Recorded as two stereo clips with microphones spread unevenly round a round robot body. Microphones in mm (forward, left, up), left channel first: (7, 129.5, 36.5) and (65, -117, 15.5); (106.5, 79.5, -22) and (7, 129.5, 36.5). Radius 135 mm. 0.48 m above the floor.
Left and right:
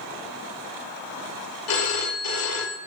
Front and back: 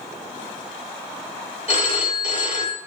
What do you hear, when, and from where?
1.7 s a phone ringing: 140° left, 1.3 m